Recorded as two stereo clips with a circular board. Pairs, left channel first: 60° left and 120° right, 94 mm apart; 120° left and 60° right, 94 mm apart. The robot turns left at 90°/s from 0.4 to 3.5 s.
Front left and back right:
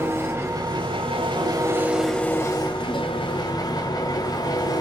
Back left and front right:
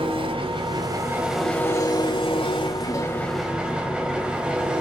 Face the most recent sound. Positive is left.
turn(degrees=20)